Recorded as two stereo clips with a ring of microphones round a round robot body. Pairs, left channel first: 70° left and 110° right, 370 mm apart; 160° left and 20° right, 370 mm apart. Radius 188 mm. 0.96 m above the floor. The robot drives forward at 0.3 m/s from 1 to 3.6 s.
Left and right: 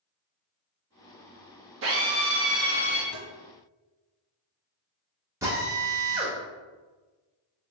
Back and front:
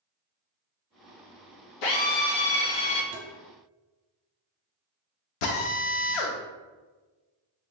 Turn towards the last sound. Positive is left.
turn(degrees=165)